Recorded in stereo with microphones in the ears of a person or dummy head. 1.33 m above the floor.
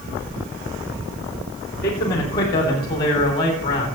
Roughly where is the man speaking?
Left.